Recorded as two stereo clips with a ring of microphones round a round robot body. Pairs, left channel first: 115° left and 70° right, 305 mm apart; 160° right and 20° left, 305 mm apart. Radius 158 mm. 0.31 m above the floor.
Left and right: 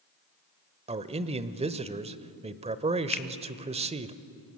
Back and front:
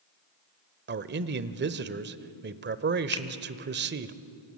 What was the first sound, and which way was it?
A man speaking, 10° right.